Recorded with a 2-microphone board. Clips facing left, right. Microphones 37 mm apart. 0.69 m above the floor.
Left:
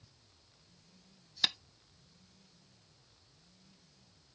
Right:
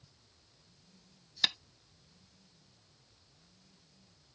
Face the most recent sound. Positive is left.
turn(degrees=-10)  # may be behind; listen again after turning